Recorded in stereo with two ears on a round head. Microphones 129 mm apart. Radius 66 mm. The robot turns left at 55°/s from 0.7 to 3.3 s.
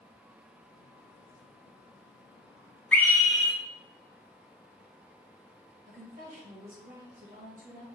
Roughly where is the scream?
Centre.